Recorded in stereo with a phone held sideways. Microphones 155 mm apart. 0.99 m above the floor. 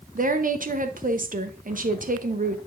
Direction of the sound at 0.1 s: 60° right (ahead or behind).